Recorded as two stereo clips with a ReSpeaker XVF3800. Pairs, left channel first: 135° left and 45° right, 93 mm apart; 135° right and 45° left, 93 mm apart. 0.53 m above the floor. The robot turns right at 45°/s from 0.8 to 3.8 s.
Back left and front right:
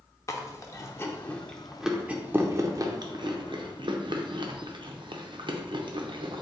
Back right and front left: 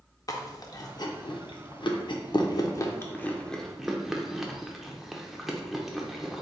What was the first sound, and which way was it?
Chewing, 175° right.